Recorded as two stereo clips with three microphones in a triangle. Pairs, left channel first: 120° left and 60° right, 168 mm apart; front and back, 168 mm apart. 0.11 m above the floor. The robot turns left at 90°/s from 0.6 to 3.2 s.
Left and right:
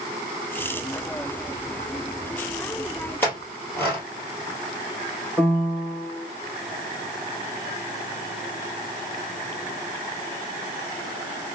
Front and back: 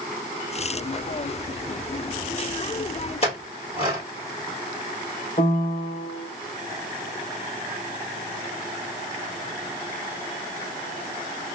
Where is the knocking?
I don't hear knocking.